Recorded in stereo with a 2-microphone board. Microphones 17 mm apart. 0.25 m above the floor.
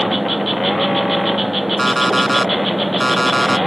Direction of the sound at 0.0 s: 5° right (ahead or behind).